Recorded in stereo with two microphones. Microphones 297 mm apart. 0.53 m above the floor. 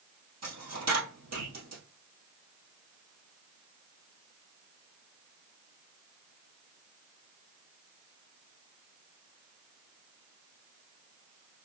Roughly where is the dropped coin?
Right.